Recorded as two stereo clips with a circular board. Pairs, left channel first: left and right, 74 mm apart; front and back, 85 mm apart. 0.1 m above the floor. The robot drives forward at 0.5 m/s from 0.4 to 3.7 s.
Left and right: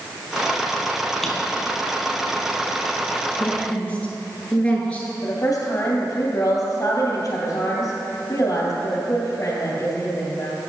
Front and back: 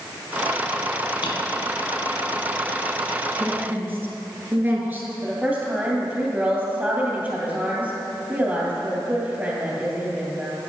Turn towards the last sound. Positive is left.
turn(degrees=115)